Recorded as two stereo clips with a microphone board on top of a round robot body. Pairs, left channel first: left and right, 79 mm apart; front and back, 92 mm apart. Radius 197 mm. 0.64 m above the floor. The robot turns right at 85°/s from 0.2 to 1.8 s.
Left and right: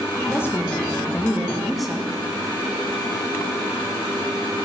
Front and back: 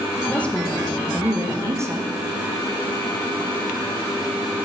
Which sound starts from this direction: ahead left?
A woman speaking, at 0.3 s.